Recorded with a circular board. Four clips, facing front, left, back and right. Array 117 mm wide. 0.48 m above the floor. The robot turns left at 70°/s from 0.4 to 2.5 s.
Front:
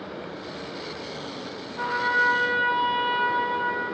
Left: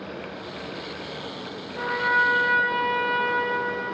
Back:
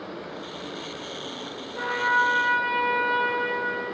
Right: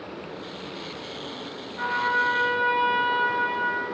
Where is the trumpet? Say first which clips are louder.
Left 1 dB, back 1 dB; 130° left, 4.5 m; by 3.8 s 75° left, 4.5 m.